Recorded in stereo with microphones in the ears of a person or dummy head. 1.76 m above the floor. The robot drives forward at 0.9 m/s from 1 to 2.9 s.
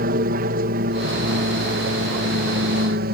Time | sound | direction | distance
0.0 | an aircraft | 55° right (ahead or behind) | ?